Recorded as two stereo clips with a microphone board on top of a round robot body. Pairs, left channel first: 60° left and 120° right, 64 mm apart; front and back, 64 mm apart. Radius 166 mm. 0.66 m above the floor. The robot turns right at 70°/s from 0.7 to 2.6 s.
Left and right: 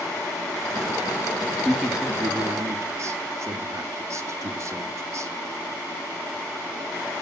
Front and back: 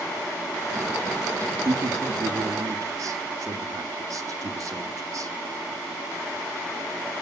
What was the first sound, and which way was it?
A man speaking, 140° left.